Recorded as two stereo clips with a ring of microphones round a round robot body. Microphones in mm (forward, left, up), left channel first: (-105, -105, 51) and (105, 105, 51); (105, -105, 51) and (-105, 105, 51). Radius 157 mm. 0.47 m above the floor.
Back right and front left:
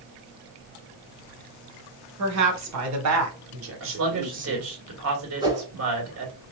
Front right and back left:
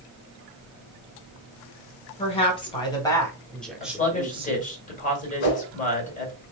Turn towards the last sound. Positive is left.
turn(degrees=-35)